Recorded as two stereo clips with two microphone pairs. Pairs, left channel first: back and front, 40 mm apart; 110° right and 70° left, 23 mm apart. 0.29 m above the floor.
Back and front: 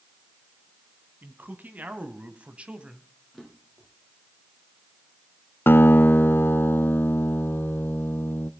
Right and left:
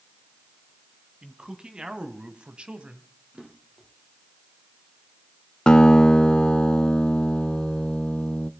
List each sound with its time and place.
1.2 s a man speaking: 20° left, 2.5 m; by 3.1 s 60° left, 2 m
3.3 s a drawer: 100° left, 7 m
5.7 s a guitar: 160° right, 0.6 m